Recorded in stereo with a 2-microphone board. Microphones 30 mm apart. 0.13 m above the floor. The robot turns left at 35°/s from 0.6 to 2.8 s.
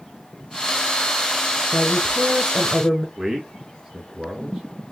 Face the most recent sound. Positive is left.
turn(degrees=-10)  # may be behind; listen again after turning